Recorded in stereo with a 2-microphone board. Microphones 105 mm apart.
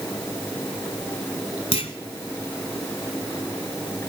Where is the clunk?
65° left (ahead or behind), 1.1 m.